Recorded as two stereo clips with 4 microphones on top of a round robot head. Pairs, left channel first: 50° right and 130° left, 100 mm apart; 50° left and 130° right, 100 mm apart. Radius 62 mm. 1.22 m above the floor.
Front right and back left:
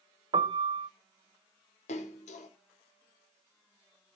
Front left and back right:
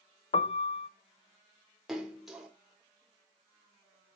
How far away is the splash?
About 3.5 m.